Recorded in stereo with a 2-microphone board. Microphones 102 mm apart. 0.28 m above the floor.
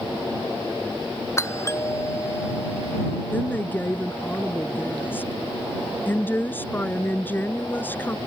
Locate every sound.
1.4 s a doorbell: 30° left (ahead or behind)
3.3 s a woman speaking: 20° left (ahead or behind)